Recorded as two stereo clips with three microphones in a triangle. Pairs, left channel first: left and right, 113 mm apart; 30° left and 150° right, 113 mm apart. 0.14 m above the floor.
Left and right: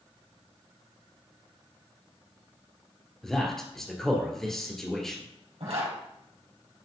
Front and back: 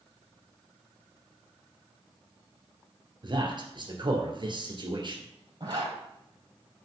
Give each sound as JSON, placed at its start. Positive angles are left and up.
{"t": 3.2, "sound": "a man speaking", "azimuth_deg": 175, "distance_m": 2.0}
{"t": 5.6, "sound": "a zipper", "azimuth_deg": -105, "distance_m": 3.5}